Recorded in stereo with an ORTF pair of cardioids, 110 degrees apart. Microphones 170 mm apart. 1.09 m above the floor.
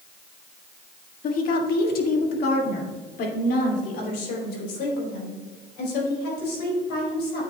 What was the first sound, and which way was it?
A woman speaking, 55° left.